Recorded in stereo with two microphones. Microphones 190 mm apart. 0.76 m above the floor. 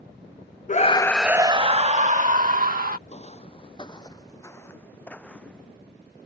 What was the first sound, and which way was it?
A scream, 40° left (ahead or behind).